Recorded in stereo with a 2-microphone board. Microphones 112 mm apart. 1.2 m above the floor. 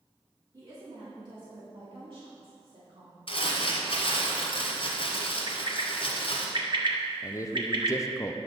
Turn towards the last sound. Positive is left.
turn(degrees=30)  # may be behind; listen again after turning